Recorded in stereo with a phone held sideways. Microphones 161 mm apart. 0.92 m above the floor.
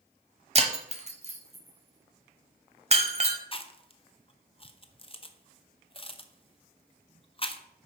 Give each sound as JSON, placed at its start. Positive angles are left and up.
{"t": 0.6, "sound": "breaking glass", "side_deg": -40, "distance_m": 1.0}
{"t": 3.5, "sound": "chewing", "side_deg": 35, "distance_m": 0.7}